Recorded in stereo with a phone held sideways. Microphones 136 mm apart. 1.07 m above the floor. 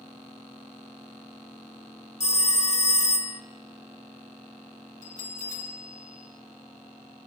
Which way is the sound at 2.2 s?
55° left (ahead or behind).